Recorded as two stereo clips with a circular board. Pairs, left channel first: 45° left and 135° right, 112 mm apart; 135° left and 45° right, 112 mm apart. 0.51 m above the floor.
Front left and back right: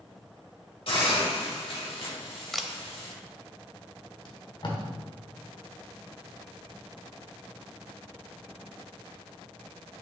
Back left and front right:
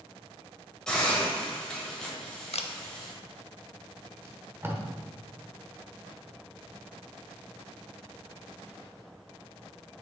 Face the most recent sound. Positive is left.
turn(degrees=15)